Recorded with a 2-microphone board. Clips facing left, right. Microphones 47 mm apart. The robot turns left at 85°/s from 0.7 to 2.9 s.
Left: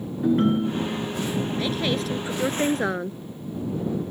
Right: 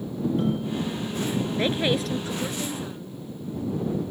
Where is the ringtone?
55° left; by 1.4 s 5° right.